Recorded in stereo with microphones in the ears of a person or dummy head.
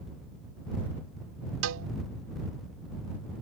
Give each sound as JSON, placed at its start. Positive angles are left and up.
{"t": 1.6, "sound": "a cowbell", "side_deg": -80}